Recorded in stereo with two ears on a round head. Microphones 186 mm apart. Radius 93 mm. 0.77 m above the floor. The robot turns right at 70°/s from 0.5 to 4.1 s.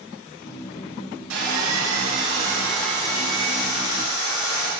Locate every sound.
1.3 s sawing: 105° right, 6 m; by 4.7 s 90° left, 6 m